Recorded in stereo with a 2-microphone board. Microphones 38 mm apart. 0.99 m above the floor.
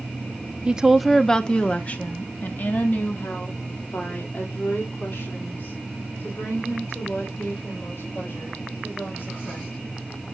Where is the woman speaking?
25° right (ahead or behind), 0.6 m; by 9.7 s 75° left (ahead or behind), 5.5 m.